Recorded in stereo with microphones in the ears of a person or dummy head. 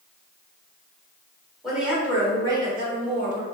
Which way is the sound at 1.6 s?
Centre (ahead or behind).